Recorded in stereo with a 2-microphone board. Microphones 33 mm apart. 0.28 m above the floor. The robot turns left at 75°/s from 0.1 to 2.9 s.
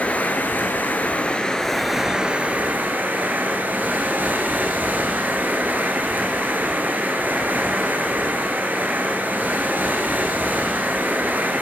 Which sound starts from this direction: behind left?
Running water, at 0.0 s.